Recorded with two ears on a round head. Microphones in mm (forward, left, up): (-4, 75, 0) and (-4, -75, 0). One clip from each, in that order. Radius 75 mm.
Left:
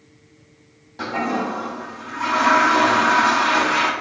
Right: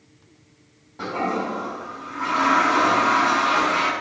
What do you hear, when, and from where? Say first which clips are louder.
1.0 s a toilet flushing: left 2 dB; 60° left (ahead or behind), 2 m